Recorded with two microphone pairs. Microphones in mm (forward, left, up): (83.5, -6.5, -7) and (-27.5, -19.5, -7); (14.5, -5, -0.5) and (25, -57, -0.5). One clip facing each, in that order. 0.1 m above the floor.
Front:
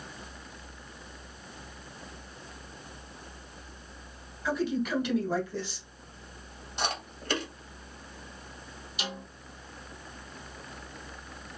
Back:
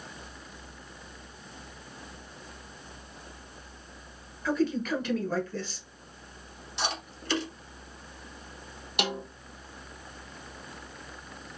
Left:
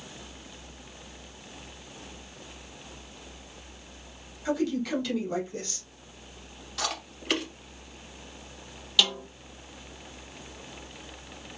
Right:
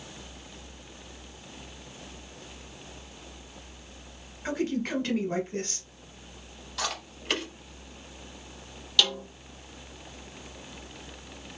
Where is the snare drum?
170° right, 0.6 m.